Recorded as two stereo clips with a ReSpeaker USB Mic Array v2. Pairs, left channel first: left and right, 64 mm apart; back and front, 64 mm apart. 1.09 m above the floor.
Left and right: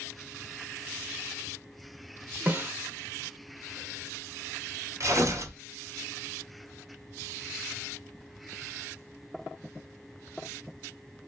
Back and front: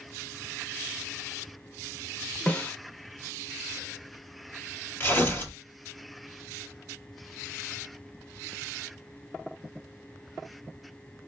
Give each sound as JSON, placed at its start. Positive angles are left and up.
{"t": 2.5, "sound": "a snare drum", "azimuth_deg": -125, "distance_m": 0.9}
{"t": 5.0, "sound": "tearing paper", "azimuth_deg": -125, "distance_m": 1.3}